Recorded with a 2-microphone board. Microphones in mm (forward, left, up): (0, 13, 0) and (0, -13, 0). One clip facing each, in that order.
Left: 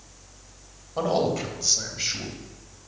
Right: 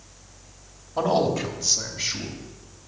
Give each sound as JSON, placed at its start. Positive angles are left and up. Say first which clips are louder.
{"t": 1.0, "sound": "a man speaking", "louder": "right 2 dB", "side_deg": 0, "distance_m": 2.0}